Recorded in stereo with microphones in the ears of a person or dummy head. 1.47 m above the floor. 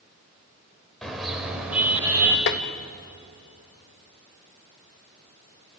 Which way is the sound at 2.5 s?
55° left (ahead or behind).